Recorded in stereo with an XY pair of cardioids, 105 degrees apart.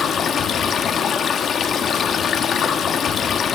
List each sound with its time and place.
0.0 s running water: 55° left, 1.3 m